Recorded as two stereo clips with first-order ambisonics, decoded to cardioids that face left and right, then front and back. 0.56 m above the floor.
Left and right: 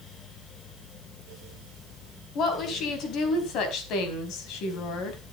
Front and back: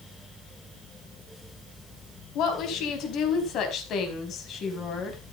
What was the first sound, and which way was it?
A woman speaking, 40° left.